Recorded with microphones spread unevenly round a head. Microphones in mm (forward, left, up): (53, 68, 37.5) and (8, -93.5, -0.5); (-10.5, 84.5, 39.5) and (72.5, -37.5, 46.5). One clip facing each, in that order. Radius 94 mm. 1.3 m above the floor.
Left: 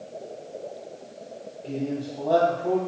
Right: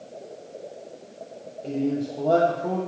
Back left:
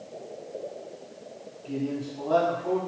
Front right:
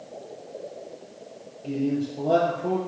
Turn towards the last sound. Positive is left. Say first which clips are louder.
# right 4 dB, front right 5 dB
turn(degrees=-75)